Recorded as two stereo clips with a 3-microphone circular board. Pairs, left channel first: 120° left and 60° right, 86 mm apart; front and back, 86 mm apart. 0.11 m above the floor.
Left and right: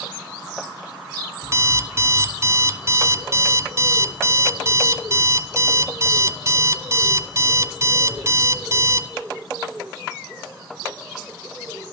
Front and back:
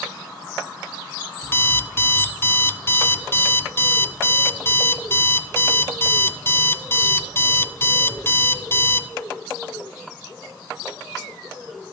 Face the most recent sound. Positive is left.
turn(degrees=-40)